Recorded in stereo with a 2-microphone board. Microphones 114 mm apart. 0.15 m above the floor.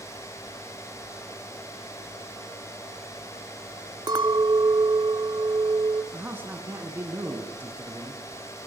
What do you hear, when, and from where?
4.1 s a clink: 40° right (ahead or behind), 0.8 m
6.1 s a man speaking: 20° right (ahead or behind), 1.8 m